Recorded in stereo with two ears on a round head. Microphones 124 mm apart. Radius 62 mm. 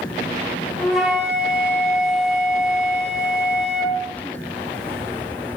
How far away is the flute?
About 3 m.